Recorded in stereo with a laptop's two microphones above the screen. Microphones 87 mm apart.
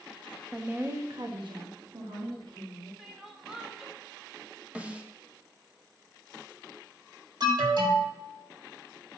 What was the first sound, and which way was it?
A woman speaking, 10° right (ahead or behind).